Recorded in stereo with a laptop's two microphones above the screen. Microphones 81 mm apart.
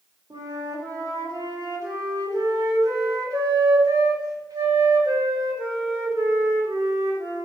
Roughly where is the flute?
Right.